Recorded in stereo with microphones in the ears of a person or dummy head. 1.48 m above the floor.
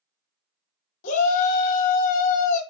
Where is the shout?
40° left (ahead or behind), 0.8 m.